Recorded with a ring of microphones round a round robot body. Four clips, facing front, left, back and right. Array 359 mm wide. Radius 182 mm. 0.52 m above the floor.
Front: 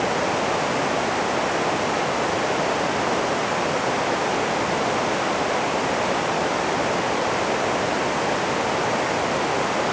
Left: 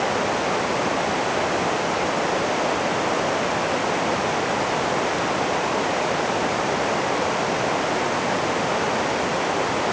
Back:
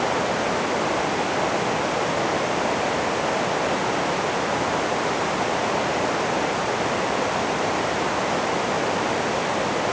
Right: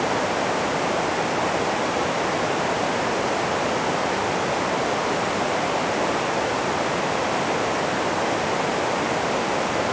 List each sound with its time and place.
Only background noise.